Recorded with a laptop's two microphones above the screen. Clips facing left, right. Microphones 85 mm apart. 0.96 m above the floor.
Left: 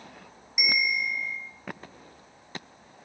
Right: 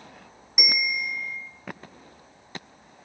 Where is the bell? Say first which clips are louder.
Left 1 dB; 60° right (ahead or behind), 0.7 m.